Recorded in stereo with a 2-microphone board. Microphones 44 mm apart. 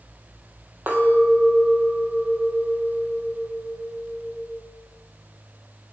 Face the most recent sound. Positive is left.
turn(degrees=-45)  # may be behind; listen again after turning